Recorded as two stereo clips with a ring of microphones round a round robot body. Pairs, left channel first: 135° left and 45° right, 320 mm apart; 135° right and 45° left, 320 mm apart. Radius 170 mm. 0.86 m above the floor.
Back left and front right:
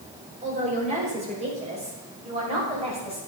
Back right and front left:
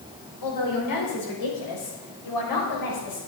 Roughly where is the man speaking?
Behind right.